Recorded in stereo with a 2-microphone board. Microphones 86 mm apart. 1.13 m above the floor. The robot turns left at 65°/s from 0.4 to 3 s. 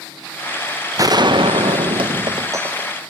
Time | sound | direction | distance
1.0 | a gunshot | 40° right | 0.5 m